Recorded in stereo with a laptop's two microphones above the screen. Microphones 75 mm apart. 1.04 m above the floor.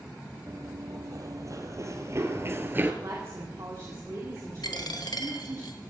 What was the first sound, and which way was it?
Running footsteps, 50° right (ahead or behind).